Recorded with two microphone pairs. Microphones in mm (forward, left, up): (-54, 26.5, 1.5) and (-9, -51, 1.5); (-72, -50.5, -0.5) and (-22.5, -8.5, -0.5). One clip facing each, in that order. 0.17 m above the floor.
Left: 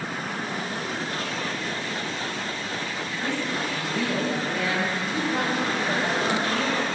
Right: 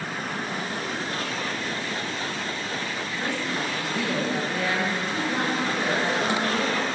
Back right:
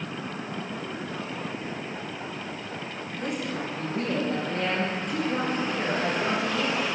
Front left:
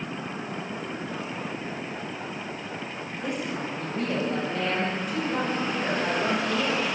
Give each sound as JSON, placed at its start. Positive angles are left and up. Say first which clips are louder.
{"t": 3.2, "sound": "a woman speaking", "louder": "left 1 dB, even", "azimuth_deg": -130, "distance_m": 4.0}